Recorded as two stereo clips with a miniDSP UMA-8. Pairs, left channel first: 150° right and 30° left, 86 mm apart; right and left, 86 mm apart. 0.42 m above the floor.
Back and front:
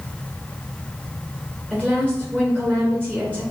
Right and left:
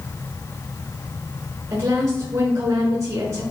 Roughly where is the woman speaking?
Left.